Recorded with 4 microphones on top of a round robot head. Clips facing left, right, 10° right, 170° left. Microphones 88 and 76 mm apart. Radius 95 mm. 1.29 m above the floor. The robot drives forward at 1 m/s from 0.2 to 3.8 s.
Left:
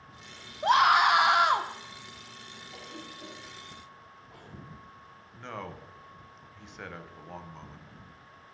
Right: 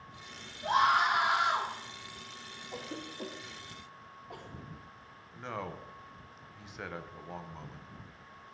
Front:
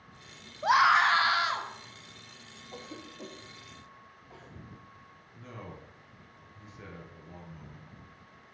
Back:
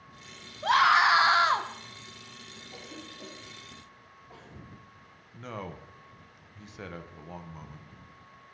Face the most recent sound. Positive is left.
turn(degrees=-175)